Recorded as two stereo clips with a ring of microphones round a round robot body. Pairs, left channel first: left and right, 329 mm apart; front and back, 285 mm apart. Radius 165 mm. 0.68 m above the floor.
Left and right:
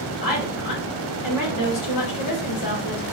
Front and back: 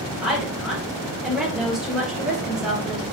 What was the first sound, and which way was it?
A woman speaking, 90° left.